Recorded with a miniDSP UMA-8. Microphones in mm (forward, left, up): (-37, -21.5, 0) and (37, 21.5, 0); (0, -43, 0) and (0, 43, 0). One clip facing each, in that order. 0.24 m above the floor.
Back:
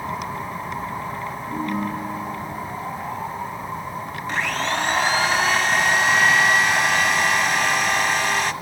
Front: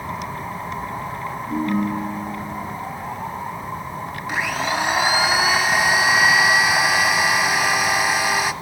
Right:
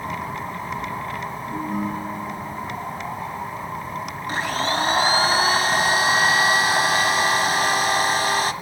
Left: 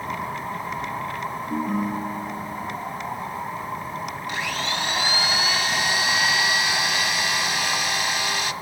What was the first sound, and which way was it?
A ringtone, 80° left.